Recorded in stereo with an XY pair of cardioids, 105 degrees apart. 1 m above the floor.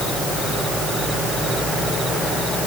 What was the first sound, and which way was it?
Only background noise.